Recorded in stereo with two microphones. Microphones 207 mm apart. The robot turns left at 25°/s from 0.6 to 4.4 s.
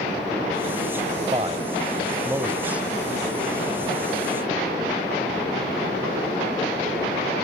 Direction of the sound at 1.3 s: 30° right (ahead or behind).